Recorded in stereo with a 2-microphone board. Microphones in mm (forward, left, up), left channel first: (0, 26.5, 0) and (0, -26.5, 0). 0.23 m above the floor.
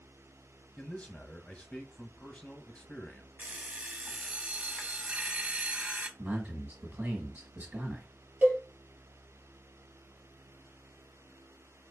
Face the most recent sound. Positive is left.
turn(degrees=-30)  # may be behind; listen again after turning